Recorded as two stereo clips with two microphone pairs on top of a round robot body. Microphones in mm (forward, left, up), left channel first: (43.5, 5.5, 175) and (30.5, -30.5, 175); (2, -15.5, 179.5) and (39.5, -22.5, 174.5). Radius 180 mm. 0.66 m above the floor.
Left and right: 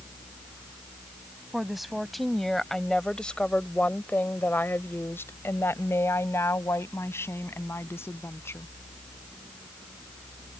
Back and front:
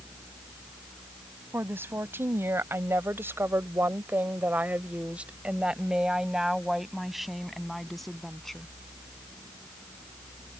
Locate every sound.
1.5 s a woman speaking: 25° right; by 8.7 s 85° left